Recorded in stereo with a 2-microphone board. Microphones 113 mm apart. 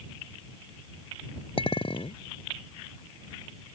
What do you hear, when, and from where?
1.6 s a clink: 55° left (ahead or behind)